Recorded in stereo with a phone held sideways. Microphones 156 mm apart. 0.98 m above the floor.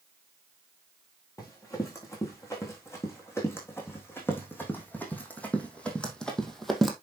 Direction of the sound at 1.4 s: 20° left (ahead or behind).